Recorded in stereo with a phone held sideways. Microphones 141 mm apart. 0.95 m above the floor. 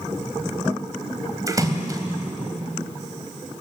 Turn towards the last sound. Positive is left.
turn(degrees=-25)  # may be behind; listen again after turning